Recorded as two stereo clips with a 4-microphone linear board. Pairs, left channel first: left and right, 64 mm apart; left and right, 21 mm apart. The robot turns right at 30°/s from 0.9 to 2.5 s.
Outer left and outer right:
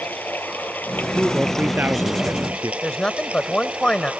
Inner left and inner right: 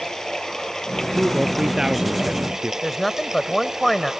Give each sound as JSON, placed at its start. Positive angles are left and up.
{"t": 0.0, "sound": "running water", "azimuth_deg": 150}
{"t": 1.1, "sound": "a man speaking", "azimuth_deg": -170}
{"t": 2.8, "sound": "a man speaking", "side_deg": 15}